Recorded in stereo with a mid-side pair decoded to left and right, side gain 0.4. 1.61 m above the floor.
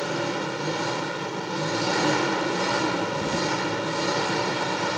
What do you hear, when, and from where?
0.0 s an engine running: 10° right